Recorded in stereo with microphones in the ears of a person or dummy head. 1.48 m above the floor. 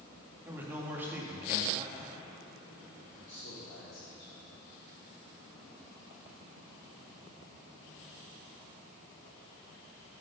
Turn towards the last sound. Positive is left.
turn(degrees=70)  # may be behind; listen again after turning